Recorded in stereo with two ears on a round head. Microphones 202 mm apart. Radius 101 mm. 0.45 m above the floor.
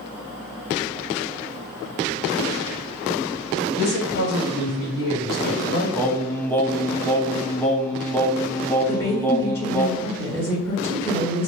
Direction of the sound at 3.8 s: 70° left (ahead or behind).